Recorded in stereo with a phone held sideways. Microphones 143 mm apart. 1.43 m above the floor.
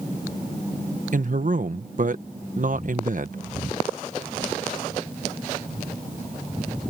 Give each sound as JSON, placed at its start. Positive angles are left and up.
{"t": 1.1, "sound": "a man speaking", "side_deg": -60}